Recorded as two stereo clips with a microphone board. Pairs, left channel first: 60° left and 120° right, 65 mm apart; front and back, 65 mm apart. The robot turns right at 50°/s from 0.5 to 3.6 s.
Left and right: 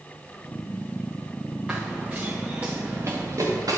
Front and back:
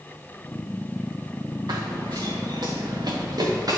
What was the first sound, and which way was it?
Running footsteps, 160° left.